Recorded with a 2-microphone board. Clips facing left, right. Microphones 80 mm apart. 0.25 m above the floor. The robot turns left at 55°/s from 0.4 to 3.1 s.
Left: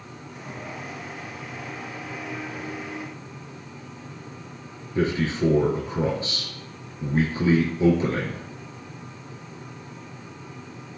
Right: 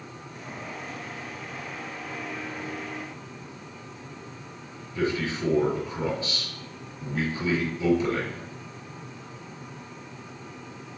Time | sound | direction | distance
5.0 | a man speaking | 35° left (ahead or behind) | 5 m